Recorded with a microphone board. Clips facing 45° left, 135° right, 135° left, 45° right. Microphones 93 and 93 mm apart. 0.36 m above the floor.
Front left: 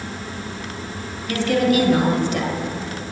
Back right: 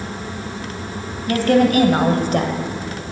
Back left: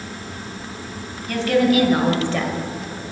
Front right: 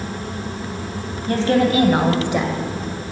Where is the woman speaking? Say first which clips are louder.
Back right 4 dB, front right 1 dB; 95° right, 2.5 m; by 2.5 s 120° right, 1.4 m.